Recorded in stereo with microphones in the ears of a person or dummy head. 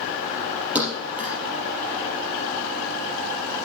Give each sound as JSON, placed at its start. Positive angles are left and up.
{"t": 0.8, "sound": "a thud", "side_deg": 0, "distance_m": 3.5}